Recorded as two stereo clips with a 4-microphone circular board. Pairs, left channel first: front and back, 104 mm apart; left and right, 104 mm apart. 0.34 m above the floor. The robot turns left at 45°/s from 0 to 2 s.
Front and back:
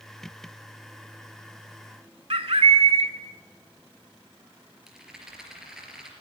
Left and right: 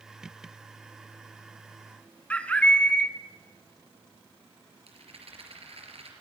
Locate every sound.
2.3 s a bird: 165° left, 0.9 m
4.9 s a rattle: 95° right, 4 m